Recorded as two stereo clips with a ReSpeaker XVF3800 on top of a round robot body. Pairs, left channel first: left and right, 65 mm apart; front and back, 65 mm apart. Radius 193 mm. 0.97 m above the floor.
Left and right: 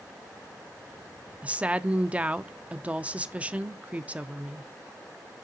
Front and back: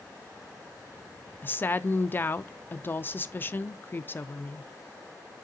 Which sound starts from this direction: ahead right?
A woman speaking, at 1.4 s.